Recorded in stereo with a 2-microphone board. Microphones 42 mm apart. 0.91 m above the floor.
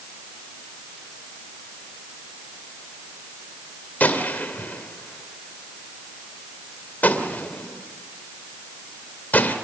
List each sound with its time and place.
4.0 s a gunshot: 40° left (ahead or behind), 2 m